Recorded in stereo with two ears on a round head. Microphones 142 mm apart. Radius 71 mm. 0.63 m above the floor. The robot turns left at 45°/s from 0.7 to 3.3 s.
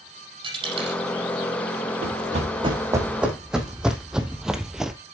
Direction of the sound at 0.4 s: 30° right (ahead or behind).